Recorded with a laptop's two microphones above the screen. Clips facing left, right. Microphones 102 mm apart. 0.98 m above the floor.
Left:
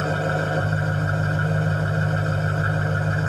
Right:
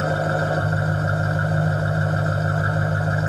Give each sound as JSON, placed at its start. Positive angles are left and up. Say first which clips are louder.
{"t": 0.0, "sound": "an engine running", "louder": "right 2 dB", "side_deg": -15, "distance_m": 4.0}